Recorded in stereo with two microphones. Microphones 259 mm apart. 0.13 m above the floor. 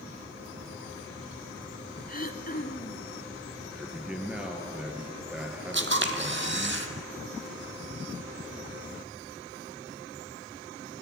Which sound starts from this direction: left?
Throat clearing, at 2.1 s.